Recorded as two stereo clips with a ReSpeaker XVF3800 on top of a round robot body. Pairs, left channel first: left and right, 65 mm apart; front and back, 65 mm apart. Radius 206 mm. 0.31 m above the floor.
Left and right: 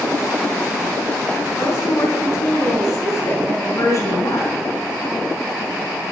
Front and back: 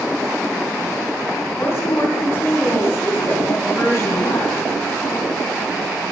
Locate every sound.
1.6 s a woman speaking: 50° left, 4 m